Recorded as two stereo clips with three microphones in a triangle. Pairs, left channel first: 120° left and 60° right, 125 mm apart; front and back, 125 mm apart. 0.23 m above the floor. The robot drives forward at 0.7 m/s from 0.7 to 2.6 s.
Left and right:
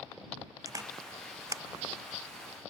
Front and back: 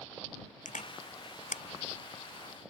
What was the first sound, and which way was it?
A camera shutter, straight ahead.